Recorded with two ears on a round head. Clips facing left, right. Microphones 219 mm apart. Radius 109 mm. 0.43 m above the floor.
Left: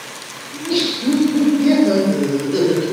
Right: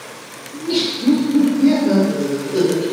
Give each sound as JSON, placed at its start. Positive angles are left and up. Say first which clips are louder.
{"t": 0.5, "sound": "laughter", "louder": "left 1 dB", "side_deg": -40, "distance_m": 1.2}